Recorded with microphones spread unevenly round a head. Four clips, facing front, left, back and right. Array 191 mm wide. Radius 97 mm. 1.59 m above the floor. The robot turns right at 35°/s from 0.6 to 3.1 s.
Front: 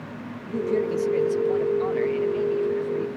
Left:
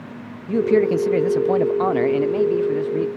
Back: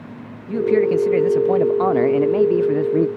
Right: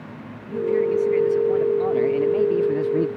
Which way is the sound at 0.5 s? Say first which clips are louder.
Left 4 dB, back 8 dB; 105° left.